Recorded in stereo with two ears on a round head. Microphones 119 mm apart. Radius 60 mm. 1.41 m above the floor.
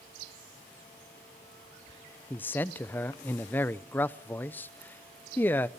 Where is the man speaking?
15° left (ahead or behind), 0.6 m.